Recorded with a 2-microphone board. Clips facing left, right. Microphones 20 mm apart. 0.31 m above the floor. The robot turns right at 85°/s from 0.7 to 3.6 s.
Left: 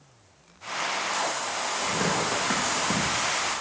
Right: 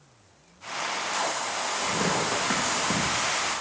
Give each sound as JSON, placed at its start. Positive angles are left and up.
{"t": 1.8, "sound": "tearing paper", "side_deg": 85, "distance_m": 7.5}